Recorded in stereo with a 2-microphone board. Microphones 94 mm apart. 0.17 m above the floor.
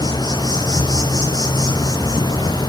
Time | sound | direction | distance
0.0 | an insect | 45° left (ahead or behind) | 2.5 m